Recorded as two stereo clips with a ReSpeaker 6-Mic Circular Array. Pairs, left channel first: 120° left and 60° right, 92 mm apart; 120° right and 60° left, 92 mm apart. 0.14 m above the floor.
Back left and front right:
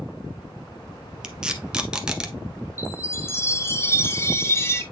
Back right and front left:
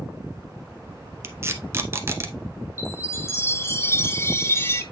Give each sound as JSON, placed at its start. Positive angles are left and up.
{"t": 1.2, "sound": "tape being pulled", "azimuth_deg": 15, "distance_m": 0.9}
{"t": 2.8, "sound": "a chime", "azimuth_deg": 180, "distance_m": 1.1}